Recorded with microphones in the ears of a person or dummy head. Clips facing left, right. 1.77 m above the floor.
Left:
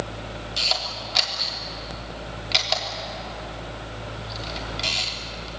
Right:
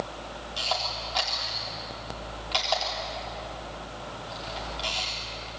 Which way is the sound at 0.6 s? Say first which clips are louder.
Right 2 dB; 30° left (ahead or behind).